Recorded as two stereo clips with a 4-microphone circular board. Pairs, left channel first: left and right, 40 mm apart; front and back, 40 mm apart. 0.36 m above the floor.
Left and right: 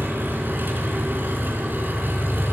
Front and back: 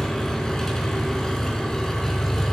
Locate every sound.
0.0 s an engine running: 75° right, 4 m